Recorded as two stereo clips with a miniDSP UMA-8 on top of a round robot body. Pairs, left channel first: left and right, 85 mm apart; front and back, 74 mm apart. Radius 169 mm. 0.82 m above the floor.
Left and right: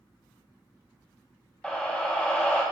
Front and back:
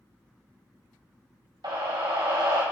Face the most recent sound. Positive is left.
turn(degrees=165)